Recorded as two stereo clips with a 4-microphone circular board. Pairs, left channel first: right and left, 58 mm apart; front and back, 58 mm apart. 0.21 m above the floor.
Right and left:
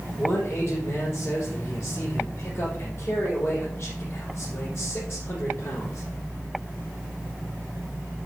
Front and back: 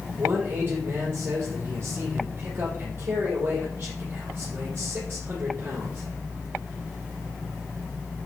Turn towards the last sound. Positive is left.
turn(degrees=-130)